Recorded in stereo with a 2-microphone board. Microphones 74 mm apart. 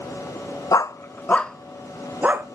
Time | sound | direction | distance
0.7 | a dog barking | 55° left (ahead or behind) | 0.6 m